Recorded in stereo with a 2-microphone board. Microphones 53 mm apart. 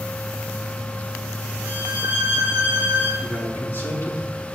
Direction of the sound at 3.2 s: 50° left (ahead or behind).